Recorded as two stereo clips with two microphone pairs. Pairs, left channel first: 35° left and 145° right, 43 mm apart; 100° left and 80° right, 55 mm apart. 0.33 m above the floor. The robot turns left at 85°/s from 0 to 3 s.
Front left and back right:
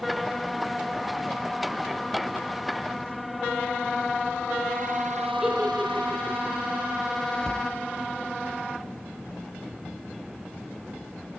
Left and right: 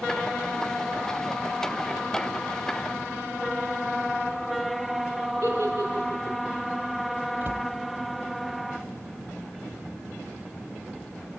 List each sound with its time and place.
5.4 s a giggle: 75° right, 10 m
7.4 s a cupboard door: 40° right, 1.3 m